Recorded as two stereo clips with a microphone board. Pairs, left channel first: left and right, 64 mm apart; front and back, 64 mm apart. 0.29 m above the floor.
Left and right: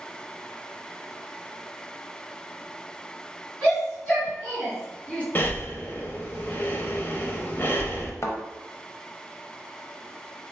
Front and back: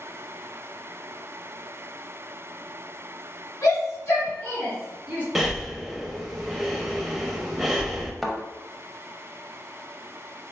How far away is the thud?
About 0.6 m.